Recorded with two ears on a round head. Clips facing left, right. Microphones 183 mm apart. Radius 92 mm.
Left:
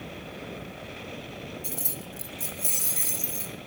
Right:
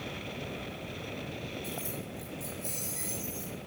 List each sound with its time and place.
1.6 s keys jangling: 35° left (ahead or behind), 1.4 m; by 3.5 s 65° left (ahead or behind), 4 m